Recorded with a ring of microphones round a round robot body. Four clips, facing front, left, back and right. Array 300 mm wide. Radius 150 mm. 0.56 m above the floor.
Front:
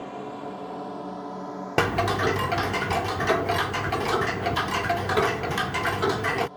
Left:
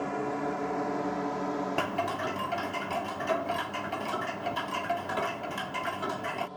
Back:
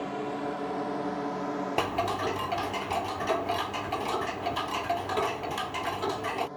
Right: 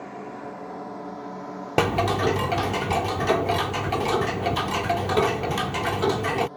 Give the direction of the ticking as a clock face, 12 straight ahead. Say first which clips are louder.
Right 8 dB, front 8 dB; 2 o'clock.